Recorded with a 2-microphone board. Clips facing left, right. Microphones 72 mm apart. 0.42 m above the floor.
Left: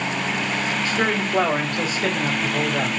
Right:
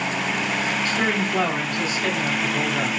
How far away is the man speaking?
About 1.5 m.